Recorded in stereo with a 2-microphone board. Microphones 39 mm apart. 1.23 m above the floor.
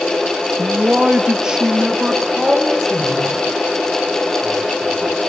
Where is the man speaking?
30° right (ahead or behind), 1.3 m; by 5.2 s 5° left (ahead or behind), 5 m.